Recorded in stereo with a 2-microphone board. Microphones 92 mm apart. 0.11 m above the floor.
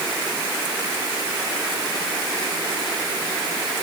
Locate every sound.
Only background noise.